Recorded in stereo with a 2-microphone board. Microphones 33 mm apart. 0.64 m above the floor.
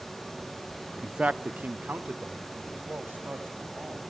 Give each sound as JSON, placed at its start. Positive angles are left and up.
{"t": 1.0, "sound": "a man speaking", "side_deg": -20, "distance_m": 0.8}